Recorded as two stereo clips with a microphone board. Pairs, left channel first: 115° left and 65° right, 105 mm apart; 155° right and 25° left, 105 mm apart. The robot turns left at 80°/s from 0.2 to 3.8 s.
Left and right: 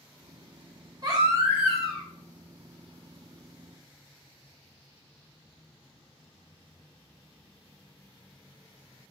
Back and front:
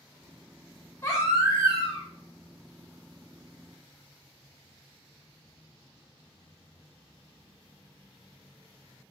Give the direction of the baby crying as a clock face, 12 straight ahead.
4 o'clock.